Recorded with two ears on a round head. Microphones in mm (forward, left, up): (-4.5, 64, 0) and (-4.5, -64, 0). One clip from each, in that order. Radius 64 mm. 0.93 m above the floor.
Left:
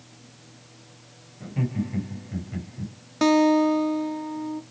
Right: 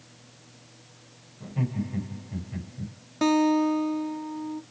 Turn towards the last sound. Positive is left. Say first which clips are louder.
# left 4 dB
turn(degrees=20)  # may be behind; listen again after turning